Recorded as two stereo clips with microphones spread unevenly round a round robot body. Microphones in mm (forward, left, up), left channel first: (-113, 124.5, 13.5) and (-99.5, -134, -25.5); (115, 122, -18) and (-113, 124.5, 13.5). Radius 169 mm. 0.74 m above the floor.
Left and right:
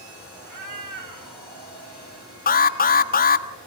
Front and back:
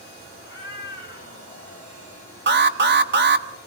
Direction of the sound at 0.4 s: 55° right.